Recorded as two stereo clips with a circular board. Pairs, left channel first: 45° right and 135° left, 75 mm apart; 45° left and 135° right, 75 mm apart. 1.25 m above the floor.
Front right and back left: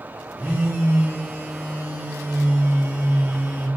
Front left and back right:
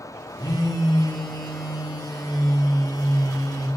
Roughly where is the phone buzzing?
Left.